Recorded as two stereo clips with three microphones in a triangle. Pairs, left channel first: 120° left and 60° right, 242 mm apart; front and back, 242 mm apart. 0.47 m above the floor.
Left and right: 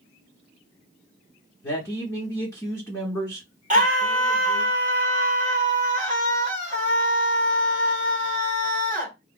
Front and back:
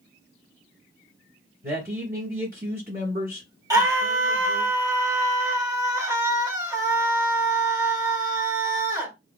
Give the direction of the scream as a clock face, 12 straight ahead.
4 o'clock.